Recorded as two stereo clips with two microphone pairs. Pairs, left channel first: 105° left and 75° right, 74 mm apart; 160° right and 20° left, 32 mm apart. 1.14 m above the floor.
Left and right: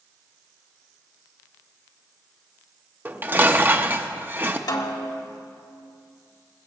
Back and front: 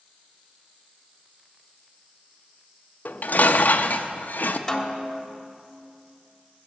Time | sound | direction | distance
3.0 | dishes clattering | 135° right | 0.7 m
4.7 | a snare drum | 125° left | 1.4 m